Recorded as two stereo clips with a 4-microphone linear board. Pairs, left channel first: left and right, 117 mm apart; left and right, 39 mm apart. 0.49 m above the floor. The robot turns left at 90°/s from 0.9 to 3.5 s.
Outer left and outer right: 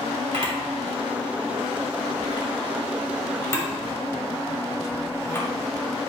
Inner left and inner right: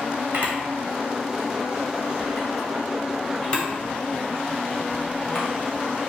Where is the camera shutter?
65° right (ahead or behind), 2.5 m; by 5.5 s 25° left (ahead or behind), 2.5 m.